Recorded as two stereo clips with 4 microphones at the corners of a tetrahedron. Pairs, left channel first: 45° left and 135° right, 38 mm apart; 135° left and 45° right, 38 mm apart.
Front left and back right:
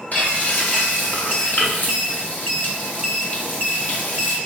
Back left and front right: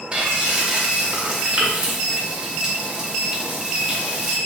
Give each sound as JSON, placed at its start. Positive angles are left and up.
{"t": 0.1, "sound": "frying", "azimuth_deg": 10, "distance_m": 1.0}